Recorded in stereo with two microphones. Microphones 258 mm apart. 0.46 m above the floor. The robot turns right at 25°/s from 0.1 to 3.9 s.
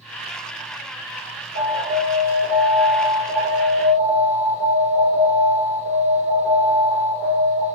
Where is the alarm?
115° right, 1.5 m; by 7.7 s 55° right, 1.5 m.